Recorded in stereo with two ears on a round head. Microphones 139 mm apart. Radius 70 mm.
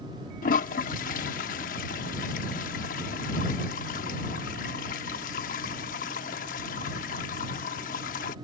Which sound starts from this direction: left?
A toilet flushing, at 0.4 s.